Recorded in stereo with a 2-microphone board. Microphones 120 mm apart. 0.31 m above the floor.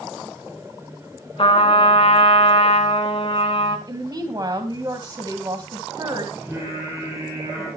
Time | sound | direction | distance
1.4 | a trumpet | 50° left (ahead or behind) | 1.9 m
3.9 | a woman speaking | 35° right (ahead or behind) | 1.8 m
6.3 | singing | 20° right (ahead or behind) | 7.5 m